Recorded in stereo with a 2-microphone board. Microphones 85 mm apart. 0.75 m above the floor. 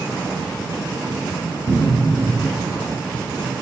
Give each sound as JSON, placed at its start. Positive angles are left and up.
{"t": 1.7, "sound": "a cupboard door", "side_deg": -50, "distance_m": 1.1}